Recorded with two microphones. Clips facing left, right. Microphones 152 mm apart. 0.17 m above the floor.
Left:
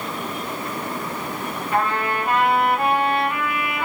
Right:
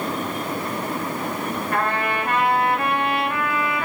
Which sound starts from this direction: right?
A trumpet, at 1.7 s.